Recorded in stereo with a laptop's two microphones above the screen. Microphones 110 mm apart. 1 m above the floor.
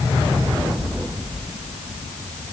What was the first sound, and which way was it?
Only background noise.